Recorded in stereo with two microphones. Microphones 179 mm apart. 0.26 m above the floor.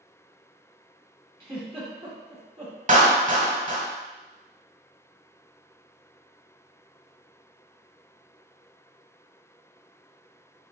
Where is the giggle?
25° right (ahead or behind), 1.4 m.